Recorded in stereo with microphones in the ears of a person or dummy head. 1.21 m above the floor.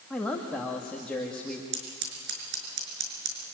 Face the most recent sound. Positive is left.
turn(degrees=-60)  # may be behind; listen again after turning